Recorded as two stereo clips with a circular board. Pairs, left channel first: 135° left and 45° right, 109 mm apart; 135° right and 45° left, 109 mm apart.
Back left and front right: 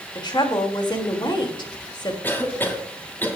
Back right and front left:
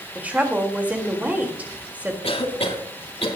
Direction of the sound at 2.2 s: 155° right.